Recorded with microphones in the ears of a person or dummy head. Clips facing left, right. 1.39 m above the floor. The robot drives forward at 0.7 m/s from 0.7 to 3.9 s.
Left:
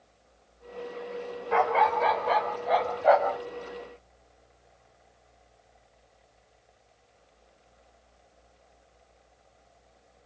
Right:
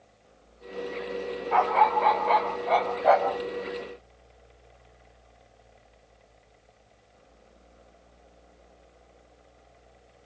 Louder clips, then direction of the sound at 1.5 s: Right 1 dB; 20° left (ahead or behind).